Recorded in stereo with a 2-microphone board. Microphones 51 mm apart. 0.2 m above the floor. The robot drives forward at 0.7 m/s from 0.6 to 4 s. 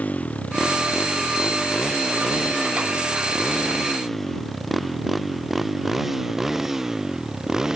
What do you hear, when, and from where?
0.0 s a motorcycle: 30° left (ahead or behind); by 7.8 s 10° right (ahead or behind)